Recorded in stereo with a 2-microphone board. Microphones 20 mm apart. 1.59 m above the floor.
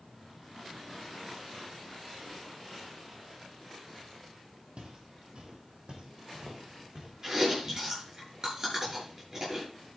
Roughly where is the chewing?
Right.